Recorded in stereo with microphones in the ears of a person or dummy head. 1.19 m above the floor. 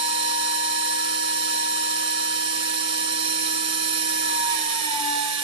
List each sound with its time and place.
0.0 s a machine running: 30° right (ahead or behind), 1.3 m